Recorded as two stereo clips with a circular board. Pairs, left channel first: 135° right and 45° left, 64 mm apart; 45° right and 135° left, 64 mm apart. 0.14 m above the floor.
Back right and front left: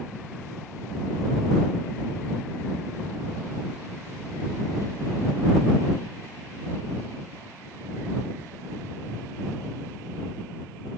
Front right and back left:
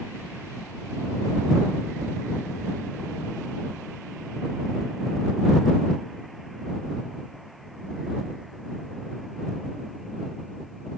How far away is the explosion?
No explosion in this recording.